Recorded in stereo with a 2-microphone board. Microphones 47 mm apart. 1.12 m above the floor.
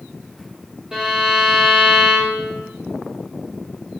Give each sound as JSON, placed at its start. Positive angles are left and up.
{"t": 0.9, "sound": "a violin", "side_deg": -15, "distance_m": 2.0}